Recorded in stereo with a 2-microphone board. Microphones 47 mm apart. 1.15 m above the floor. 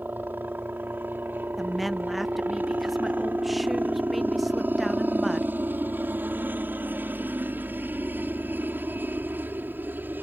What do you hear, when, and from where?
0.0 s a helicopter: 50° right (ahead or behind)
1.6 s a woman speaking: 5° right (ahead or behind)